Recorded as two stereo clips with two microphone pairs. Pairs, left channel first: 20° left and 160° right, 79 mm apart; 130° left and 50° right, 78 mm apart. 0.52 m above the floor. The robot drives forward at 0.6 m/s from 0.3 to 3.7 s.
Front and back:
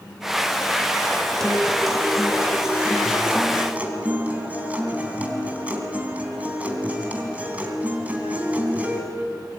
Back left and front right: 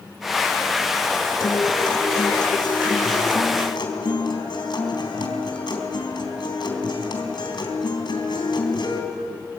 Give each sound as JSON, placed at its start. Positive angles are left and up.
{"t": 1.4, "sound": "a guitar", "azimuth_deg": 100, "distance_m": 3.0}